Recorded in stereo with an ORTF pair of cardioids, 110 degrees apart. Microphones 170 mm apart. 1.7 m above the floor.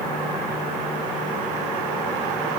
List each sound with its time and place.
Only background noise.